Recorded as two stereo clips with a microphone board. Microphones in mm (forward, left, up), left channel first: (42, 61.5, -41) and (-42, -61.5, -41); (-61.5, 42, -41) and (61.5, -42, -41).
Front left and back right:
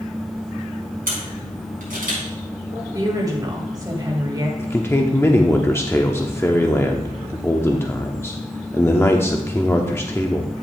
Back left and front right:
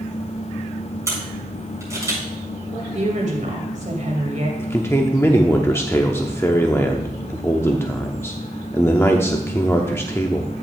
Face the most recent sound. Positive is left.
turn(degrees=100)